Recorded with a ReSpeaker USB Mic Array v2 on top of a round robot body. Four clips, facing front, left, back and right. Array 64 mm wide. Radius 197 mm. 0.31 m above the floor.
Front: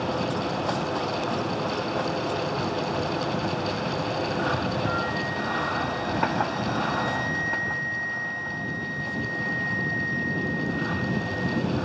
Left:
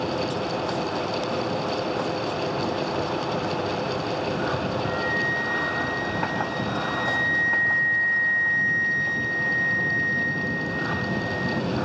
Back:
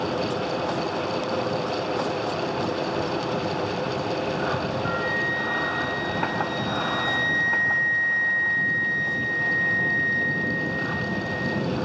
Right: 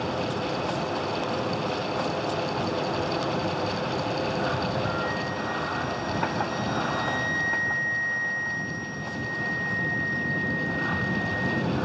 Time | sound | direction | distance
4.8 | a flute | 150° left | 3.5 m